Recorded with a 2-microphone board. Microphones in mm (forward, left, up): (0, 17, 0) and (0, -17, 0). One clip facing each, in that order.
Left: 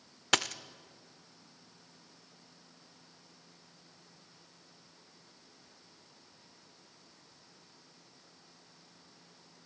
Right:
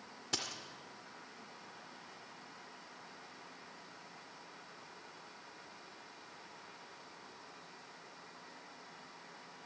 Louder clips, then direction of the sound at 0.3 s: Left 11 dB; 65° left (ahead or behind).